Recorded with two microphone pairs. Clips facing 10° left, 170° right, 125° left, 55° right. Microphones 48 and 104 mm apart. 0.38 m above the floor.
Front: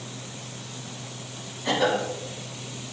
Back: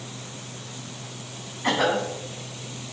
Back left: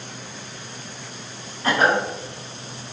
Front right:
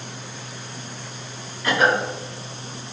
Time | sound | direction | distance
1.6 | a cough | 175° left | 3.5 m